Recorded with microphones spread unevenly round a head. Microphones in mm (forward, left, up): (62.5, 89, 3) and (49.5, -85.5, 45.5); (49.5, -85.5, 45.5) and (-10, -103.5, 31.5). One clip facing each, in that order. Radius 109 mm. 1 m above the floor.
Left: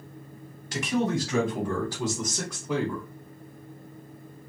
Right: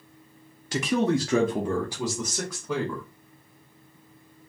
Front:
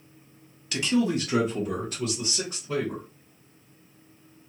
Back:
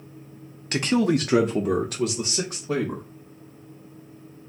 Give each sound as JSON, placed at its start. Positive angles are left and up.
{"t": 0.7, "sound": "a man speaking", "azimuth_deg": -120, "distance_m": 0.6}